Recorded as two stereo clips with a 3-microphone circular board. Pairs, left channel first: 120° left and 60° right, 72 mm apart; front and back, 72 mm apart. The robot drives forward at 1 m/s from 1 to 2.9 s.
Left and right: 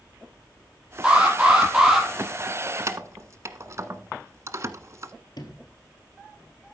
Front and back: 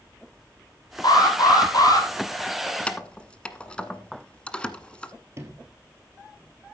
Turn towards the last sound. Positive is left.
turn(degrees=130)